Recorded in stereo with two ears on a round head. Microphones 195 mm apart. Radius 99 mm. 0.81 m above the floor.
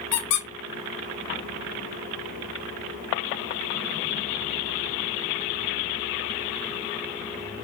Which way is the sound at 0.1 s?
85° left.